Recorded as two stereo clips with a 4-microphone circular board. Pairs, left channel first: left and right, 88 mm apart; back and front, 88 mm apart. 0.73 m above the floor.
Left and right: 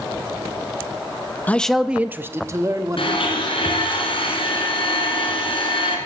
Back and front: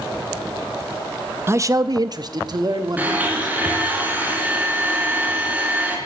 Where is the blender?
75° left, 3 m.